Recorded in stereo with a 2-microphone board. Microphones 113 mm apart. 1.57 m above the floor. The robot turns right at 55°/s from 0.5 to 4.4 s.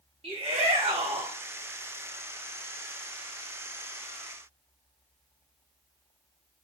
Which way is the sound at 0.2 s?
105° right.